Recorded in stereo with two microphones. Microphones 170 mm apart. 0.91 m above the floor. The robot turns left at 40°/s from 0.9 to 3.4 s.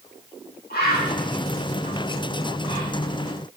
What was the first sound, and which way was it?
A bird, 75° left (ahead or behind).